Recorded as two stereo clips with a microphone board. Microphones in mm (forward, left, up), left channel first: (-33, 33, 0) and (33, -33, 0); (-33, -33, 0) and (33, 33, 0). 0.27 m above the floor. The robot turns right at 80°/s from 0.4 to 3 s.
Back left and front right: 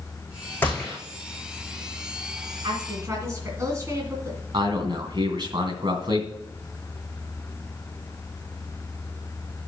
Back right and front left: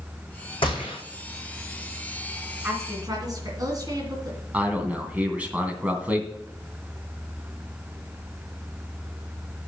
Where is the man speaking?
25° right, 2.5 m.